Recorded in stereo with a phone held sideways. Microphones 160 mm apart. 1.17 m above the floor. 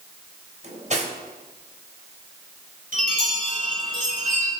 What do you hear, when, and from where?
0.6 s cutlery clinking: 50° right (ahead or behind), 3.5 m
2.9 s a chime: 55° right (ahead or behind), 5 m